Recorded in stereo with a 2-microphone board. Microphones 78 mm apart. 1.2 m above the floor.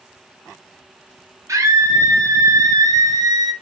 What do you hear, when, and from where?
1.5 s a scream: 45° right (ahead or behind), 3 m; by 3.5 s 55° right (ahead or behind), 0.9 m